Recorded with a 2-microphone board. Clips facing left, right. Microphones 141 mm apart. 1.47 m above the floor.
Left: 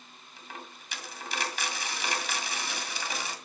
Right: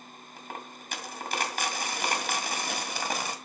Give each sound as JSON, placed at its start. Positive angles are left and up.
{"t": 0.4, "sound": "a dropped coin", "side_deg": -50, "distance_m": 1.9}